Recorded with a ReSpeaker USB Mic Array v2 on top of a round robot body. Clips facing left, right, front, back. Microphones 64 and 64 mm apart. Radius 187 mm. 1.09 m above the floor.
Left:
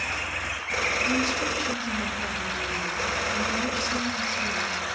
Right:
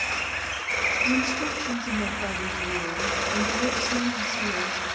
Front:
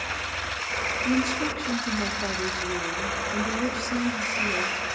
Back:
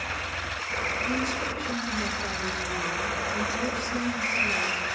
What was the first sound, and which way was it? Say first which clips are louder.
A woman speaking: even, front 3 dB; 25° right.